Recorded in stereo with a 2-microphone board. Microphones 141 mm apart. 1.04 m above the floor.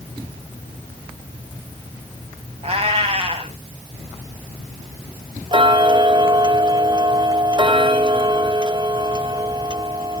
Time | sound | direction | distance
2.6 | a cat meowing | 45° right (ahead or behind) | 1.7 m
5.5 | ticking | 35° right (ahead or behind) | 0.6 m